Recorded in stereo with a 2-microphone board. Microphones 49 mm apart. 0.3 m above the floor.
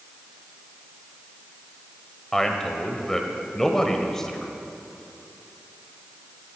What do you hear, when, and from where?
2.3 s a man speaking: 10° left (ahead or behind), 1.1 m